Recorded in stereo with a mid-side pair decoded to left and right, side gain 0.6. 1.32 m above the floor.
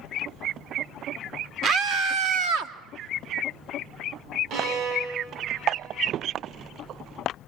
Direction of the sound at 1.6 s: 55° right.